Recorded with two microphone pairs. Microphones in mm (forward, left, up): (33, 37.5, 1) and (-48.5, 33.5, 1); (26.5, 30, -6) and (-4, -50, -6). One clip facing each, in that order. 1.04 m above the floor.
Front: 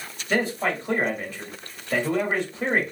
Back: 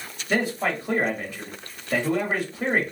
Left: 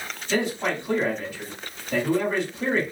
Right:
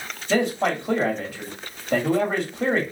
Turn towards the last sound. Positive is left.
turn(degrees=-95)